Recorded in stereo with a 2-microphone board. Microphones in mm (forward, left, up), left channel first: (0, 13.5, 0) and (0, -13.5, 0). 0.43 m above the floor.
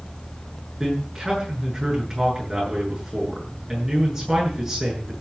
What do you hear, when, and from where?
0.8 s a man speaking: 15° right (ahead or behind), 7.5 m